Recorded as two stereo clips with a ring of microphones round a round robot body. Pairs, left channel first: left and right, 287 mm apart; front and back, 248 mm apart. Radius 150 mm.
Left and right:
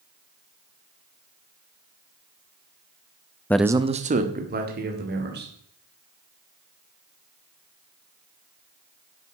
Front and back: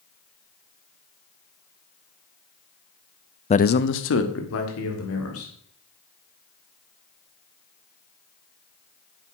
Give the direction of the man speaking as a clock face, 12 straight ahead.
11 o'clock.